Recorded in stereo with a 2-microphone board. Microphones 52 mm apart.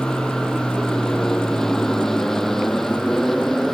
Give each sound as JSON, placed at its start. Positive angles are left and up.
{"t": 0.0, "sound": "an aircraft", "side_deg": 10}